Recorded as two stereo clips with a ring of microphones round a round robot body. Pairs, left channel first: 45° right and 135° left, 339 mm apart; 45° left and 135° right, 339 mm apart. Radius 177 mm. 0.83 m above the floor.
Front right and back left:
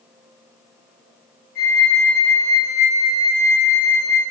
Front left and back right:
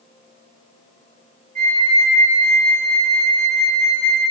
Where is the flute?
175° left, 2 m.